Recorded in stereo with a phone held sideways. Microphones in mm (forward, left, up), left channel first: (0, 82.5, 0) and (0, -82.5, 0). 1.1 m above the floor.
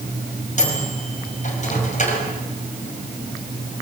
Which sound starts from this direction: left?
A microwave, at 0.6 s.